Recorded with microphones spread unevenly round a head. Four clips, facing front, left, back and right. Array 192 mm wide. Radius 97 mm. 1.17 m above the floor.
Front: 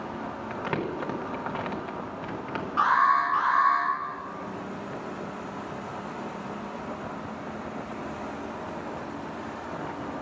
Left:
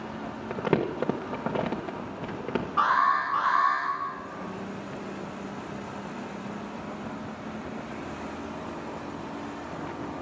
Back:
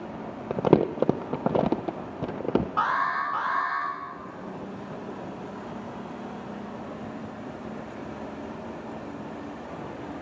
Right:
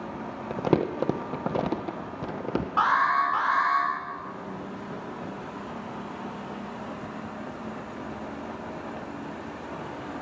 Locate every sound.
0.5 s crumpling: 175° right, 0.5 m
2.8 s an alarm: 115° right, 4.5 m